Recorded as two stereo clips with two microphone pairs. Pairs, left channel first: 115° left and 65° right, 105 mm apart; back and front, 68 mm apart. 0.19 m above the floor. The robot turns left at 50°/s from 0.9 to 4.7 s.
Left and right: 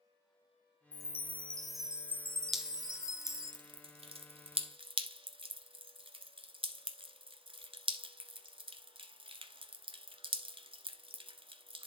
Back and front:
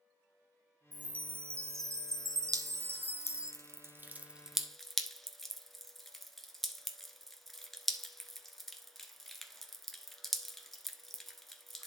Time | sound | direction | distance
0.9 | a chime | 60° left | 0.8 m
2.5 | dripping | 20° left | 1.1 m